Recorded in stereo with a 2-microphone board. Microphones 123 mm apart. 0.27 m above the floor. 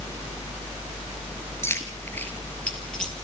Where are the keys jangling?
20° left (ahead or behind), 3 m; by 3.1 s 5° left (ahead or behind), 4.5 m.